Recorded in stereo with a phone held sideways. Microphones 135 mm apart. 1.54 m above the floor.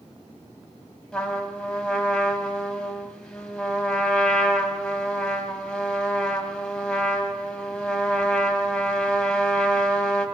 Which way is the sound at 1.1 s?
5° left (ahead or behind).